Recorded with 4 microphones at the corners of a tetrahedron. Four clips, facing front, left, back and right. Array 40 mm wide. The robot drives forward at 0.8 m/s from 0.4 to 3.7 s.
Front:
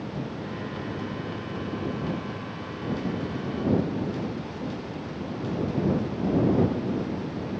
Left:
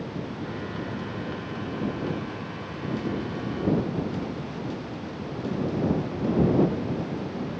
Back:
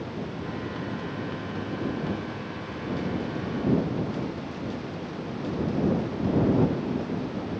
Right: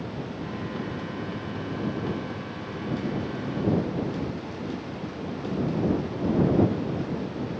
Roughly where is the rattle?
I don't hear a rattle.